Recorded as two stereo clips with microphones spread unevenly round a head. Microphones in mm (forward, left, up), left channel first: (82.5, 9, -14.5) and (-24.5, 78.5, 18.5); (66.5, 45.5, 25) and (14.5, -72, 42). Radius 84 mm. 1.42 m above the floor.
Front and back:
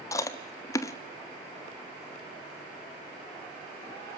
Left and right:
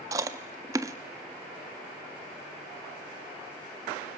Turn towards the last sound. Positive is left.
turn(degrees=-110)